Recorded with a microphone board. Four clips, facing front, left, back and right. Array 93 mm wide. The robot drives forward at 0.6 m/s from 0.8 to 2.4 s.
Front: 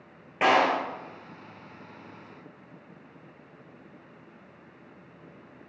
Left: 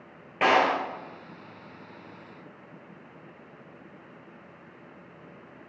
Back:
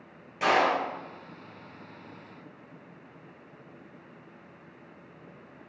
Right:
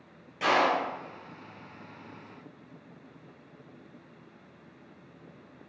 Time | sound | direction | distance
0.4 | a clap | 50° left | 2 m